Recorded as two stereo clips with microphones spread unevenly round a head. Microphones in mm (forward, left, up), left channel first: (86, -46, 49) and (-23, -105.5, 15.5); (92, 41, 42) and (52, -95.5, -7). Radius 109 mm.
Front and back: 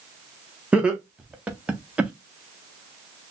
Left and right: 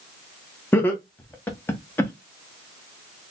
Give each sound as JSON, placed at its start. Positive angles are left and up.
{"t": 0.7, "sound": "laughter", "azimuth_deg": 175, "distance_m": 0.8}